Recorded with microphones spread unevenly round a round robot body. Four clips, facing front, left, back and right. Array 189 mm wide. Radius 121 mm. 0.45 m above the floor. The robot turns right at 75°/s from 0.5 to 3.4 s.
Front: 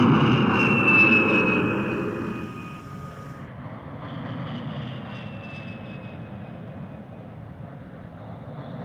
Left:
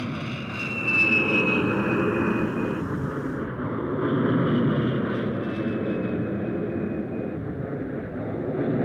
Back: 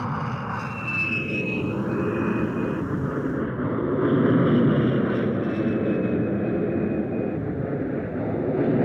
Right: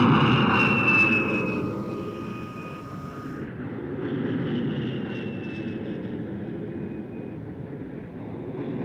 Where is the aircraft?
40° right; by 8.8 s 165° left.